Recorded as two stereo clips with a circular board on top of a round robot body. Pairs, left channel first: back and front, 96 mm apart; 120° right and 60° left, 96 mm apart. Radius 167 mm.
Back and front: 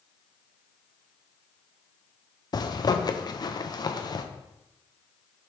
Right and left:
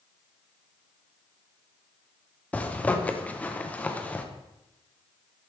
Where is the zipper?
170° left, 0.8 m.